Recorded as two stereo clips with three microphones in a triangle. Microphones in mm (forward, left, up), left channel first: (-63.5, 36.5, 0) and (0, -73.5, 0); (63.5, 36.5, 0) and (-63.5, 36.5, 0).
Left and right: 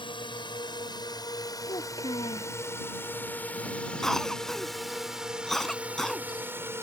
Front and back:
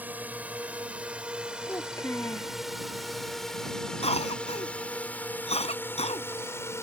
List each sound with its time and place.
0.0 s a drone: 110° left; by 6.8 s 25° right
1.7 s a child speaking: 70° left
4.0 s a cough: 35° left